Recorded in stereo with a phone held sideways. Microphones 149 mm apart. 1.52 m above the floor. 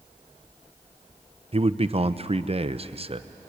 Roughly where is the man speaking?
Right.